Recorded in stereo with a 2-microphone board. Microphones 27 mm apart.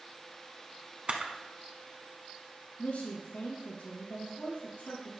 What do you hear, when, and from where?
1.1 s a camera shutter: 45° right (ahead or behind), 1.0 m
2.8 s a woman speaking: 55° left (ahead or behind), 3.5 m